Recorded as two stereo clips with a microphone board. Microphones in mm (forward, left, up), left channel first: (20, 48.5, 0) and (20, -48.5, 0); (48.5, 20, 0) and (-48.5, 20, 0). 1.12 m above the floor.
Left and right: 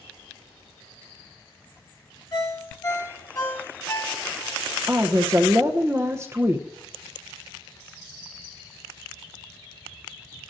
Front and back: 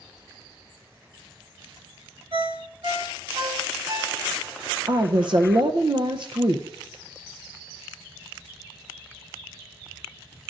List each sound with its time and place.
2.3 s a ringtone: 145° left, 1.8 m
4.9 s a woman speaking: 150° right, 0.6 m